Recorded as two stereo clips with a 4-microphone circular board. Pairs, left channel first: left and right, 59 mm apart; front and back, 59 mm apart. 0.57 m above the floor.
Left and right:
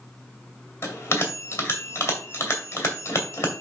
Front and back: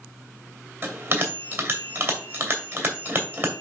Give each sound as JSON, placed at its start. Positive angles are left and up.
{"t": 0.8, "sound": "a bell", "azimuth_deg": 130, "distance_m": 2.5}